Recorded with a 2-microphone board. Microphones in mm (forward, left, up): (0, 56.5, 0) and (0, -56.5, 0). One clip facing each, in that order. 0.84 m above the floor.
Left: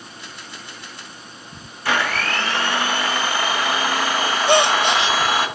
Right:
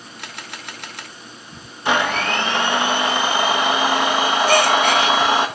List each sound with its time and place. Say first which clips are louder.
0.2 s a camera shutter: right 6 dB; 70° right (ahead or behind), 1.0 m
1.9 s a blender: right 3 dB; 20° right (ahead or behind), 1.3 m
4.5 s a gasp: left 1 dB; 20° left (ahead or behind), 0.6 m